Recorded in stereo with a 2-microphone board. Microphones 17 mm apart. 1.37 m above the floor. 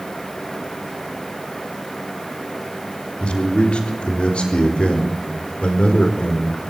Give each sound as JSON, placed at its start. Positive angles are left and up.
{"t": 3.2, "sound": "a man speaking", "side_deg": 75, "distance_m": 3.5}